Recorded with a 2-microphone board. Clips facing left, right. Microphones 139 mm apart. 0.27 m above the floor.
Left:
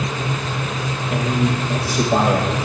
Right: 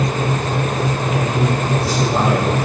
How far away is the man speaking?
About 7 m.